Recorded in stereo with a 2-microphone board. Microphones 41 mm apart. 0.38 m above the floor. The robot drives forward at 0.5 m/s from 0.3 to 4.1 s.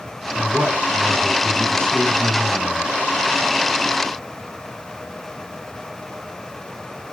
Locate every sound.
0.3 s a man speaking: 55° right (ahead or behind), 4 m; by 2.9 s 45° right (ahead or behind), 4.5 m